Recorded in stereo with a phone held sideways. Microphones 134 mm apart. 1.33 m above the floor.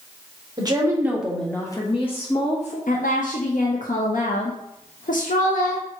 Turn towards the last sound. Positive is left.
turn(degrees=80)